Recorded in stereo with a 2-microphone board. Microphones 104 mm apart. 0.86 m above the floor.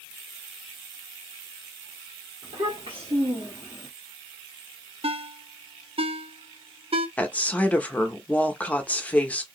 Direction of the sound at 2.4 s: 65° right (ahead or behind).